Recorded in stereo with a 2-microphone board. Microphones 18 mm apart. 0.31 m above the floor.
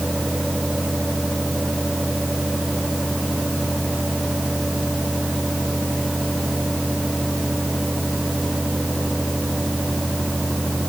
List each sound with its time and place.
Only background noise.